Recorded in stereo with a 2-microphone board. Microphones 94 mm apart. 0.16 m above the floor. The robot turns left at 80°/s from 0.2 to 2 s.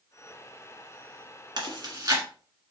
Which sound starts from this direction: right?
Chewing, at 1.6 s.